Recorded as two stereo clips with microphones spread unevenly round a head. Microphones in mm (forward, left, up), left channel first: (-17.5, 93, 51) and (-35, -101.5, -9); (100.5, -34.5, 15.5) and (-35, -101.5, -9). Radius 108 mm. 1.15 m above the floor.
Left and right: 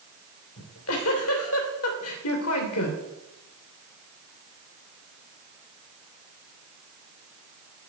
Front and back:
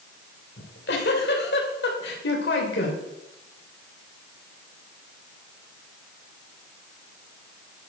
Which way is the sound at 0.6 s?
65° left.